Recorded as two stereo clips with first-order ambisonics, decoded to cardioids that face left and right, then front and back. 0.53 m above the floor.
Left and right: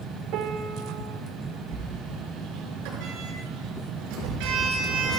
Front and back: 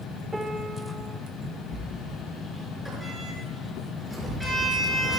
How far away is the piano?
About 1.5 m.